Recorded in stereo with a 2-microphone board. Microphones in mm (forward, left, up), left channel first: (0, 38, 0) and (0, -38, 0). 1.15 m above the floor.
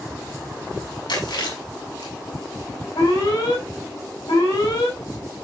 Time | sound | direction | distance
1.1 | chewing | 80° left | 7.5 m
3.0 | an alarm | 75° left (ahead or behind) | 7.5 m